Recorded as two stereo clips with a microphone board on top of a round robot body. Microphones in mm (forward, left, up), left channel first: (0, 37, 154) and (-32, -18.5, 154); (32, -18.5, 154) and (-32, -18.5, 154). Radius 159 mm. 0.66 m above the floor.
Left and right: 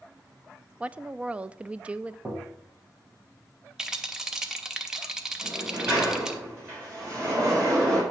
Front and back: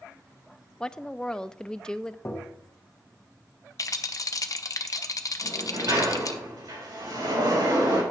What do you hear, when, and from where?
0.8 s a woman speaking: 70° right, 0.5 m
2.2 s tapping: 60° right, 1.2 m
3.8 s a rattle: 40° right, 0.7 m
5.4 s a sliding door: 170° right, 4.5 m